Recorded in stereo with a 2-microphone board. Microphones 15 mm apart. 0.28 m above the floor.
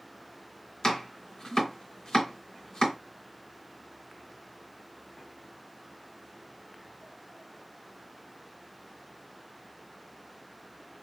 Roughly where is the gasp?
I don't hear a gasp.